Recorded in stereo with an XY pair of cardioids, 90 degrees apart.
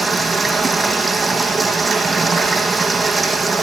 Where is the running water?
25° right, 5.5 m.